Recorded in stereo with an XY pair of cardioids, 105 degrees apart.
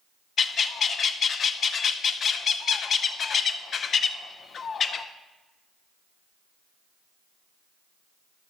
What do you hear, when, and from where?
0.4 s a bird: 50° left, 0.5 m